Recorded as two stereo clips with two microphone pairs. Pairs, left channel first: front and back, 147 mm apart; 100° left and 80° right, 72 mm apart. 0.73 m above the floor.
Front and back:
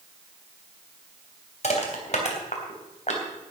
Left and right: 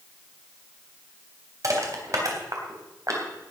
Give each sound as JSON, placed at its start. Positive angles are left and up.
{"t": 1.6, "sound": "crushing", "azimuth_deg": -40, "distance_m": 3.0}